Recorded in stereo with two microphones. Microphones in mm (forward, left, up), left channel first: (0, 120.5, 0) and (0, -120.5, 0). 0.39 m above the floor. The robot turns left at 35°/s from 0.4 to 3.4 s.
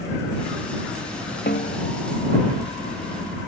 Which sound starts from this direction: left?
A snare drum, at 1.5 s.